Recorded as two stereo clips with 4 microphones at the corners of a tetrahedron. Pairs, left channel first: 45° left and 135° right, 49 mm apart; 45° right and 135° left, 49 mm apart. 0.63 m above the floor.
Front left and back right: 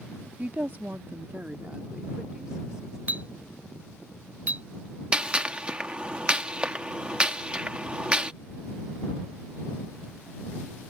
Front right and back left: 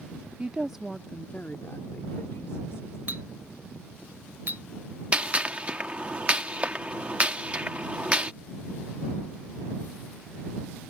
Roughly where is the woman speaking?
Behind.